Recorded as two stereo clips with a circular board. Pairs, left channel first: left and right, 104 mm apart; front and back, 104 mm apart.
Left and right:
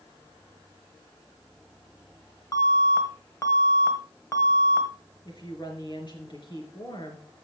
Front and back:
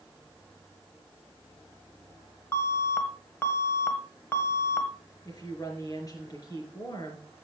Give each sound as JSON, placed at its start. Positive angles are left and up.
{"t": 2.5, "sound": "an alarm", "azimuth_deg": 55, "distance_m": 1.8}
{"t": 5.2, "sound": "a woman speaking", "azimuth_deg": 50, "distance_m": 4.0}